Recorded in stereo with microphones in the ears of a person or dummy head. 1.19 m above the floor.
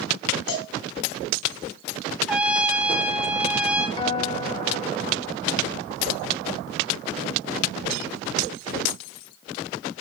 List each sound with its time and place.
0.5 s a cowbell: 80° left, 4 m
2.3 s a trumpet: 10° right (ahead or behind), 1.5 m
4.0 s a guitar: 30° left (ahead or behind), 1.3 m